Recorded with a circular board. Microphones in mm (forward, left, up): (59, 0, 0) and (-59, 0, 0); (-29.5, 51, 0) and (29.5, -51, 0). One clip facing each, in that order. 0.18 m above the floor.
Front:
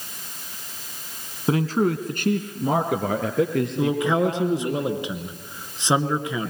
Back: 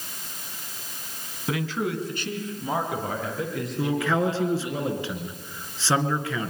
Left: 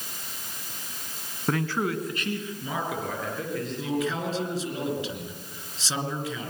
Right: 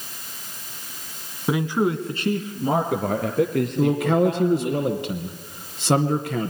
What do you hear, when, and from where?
1.5 s a man speaking: 15° left, 1.6 m; by 4.8 s 30° right, 5 m
3.8 s a man speaking: 70° right, 2.5 m